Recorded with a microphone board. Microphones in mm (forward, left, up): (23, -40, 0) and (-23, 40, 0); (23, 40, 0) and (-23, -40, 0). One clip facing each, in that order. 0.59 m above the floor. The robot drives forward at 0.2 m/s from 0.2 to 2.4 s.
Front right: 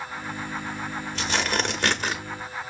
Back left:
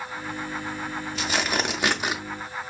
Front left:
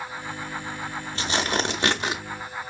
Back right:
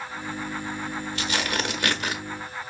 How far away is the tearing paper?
About 0.8 m.